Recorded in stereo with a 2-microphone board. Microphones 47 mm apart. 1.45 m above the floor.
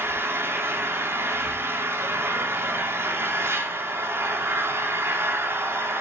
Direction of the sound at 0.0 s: 65° right (ahead or behind).